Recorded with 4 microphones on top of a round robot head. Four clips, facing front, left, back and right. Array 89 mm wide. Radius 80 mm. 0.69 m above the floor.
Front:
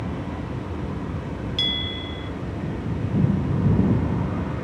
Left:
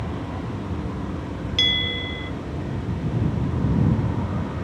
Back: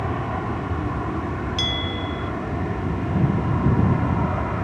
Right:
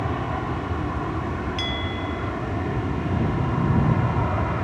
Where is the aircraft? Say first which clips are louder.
Right 4 dB, back 5 dB; 140° right; by 4.7 s 135° right.